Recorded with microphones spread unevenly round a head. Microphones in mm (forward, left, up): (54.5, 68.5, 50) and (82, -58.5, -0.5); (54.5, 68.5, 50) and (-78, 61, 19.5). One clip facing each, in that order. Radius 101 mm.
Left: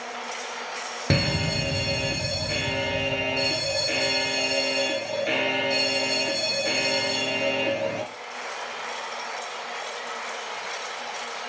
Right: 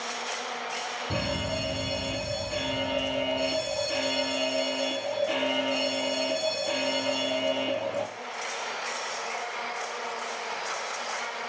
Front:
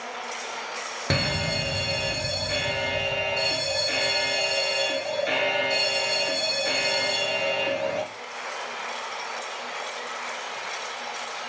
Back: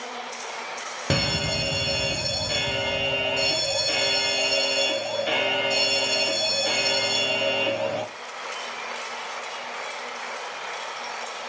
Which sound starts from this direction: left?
A fire alarm, at 1.1 s.